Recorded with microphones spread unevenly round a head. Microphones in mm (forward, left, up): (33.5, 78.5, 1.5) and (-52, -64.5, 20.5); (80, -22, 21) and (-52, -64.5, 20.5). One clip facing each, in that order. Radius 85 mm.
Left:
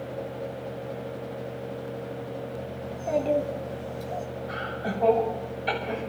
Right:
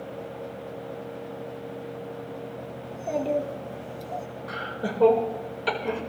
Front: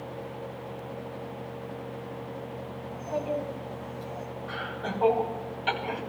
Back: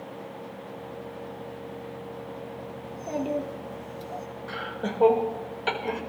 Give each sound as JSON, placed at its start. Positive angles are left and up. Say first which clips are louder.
{"t": 2.8, "sound": "a child speaking", "louder": "left 2 dB, back 1 dB", "azimuth_deg": 150, "distance_m": 3.0}
{"t": 4.5, "sound": "laughter", "louder": "right 3 dB, back 3 dB", "azimuth_deg": -125, "distance_m": 5.5}